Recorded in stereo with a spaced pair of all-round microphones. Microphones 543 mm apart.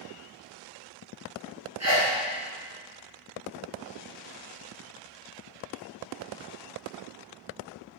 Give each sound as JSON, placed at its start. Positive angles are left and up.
{"t": 1.8, "sound": "a sneeze", "side_deg": -30, "distance_m": 0.8}